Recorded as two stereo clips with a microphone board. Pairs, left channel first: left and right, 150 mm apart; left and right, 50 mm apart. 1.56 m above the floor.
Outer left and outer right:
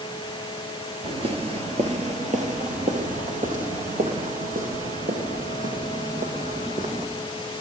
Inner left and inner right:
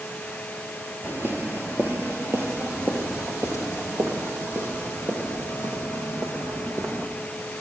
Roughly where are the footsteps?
Right.